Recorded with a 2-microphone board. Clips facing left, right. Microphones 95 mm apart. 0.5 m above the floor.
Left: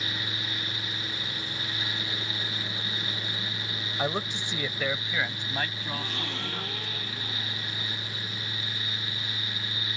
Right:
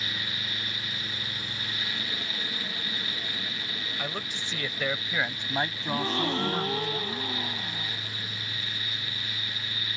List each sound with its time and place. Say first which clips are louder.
4.0 s a man speaking: left 8 dB; 40° left (ahead or behind); by 6.9 s 40° right (ahead or behind)
5.9 s a gasp: right 7 dB; 40° right (ahead or behind)